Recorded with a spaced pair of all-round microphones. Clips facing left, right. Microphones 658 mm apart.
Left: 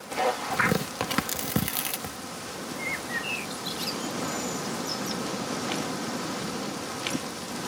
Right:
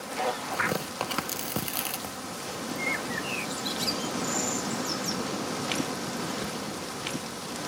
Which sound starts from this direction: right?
A bird, at 2.8 s.